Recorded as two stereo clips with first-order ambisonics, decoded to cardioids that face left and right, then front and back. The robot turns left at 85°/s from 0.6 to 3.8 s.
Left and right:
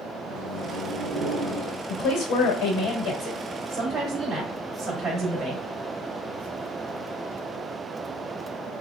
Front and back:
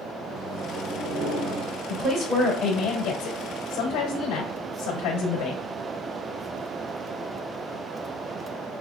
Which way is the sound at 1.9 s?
125° left.